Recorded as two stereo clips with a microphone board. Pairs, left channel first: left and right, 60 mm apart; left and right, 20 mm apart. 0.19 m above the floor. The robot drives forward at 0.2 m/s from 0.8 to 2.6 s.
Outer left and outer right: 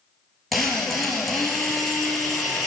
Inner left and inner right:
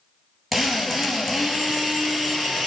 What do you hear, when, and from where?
0.5 s a drill: centre (ahead or behind), 3 m